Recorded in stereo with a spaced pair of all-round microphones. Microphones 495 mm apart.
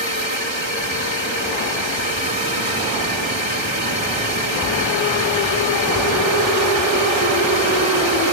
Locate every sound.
0.0 s a drone: 65° left (ahead or behind)